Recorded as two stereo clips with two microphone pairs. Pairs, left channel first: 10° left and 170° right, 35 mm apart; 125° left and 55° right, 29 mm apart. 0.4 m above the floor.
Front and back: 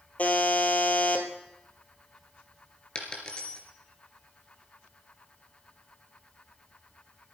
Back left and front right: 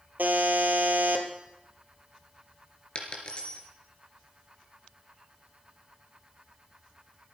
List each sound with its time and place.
0.2 s a buzzer: 40° right, 2.5 m
3.0 s a dropped coin: 70° left, 3.5 m